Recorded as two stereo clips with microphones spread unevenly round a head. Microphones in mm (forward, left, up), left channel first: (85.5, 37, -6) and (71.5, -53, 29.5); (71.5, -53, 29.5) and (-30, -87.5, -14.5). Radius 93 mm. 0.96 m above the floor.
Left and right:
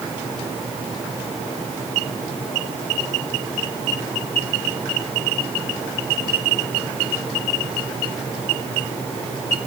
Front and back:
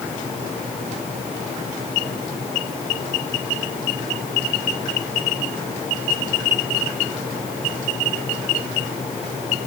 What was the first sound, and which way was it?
Only background noise.